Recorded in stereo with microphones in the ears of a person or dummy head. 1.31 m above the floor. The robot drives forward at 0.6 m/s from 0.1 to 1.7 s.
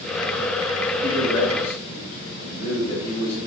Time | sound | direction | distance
1.0 | a man speaking | 80° left | 3 m